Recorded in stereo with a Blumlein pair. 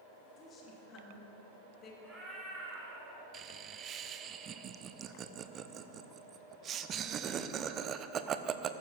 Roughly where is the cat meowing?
Ahead.